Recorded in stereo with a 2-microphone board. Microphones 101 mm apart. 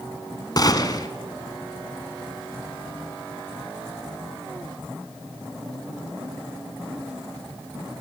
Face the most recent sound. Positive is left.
turn(degrees=40)  # may be behind; listen again after turning